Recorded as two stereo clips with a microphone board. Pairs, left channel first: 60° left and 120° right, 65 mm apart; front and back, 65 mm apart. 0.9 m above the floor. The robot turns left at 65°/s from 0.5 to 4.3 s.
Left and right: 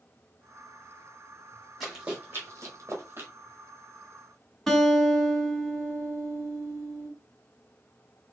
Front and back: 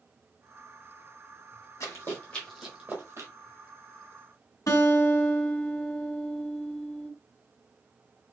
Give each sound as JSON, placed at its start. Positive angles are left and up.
{"t": 1.8, "sound": "running footsteps", "azimuth_deg": -30, "distance_m": 2.0}
{"t": 4.7, "sound": "a guitar", "azimuth_deg": -20, "distance_m": 1.3}